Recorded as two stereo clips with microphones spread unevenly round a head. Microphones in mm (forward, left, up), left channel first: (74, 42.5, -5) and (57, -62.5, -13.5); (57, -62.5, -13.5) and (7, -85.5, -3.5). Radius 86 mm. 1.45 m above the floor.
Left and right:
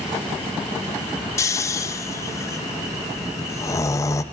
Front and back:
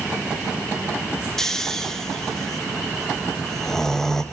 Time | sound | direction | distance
1.4 | snoring | 120° left | 0.7 m